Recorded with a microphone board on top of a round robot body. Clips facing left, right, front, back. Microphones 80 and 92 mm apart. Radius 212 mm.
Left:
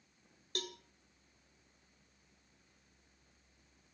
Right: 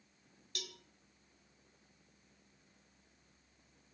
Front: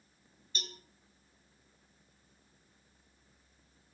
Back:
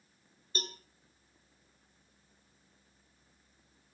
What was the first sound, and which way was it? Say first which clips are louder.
A cowbell: left 7 dB, back 5 dB; 135° left.